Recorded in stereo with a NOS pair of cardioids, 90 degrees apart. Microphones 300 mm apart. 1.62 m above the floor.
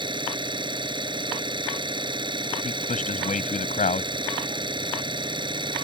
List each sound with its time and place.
0.0 s an engine running: 15° right
2.6 s a man speaking: 25° left